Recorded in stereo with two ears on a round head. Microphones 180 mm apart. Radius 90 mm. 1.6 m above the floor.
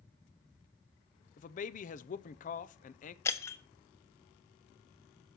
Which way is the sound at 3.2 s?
15° left (ahead or behind).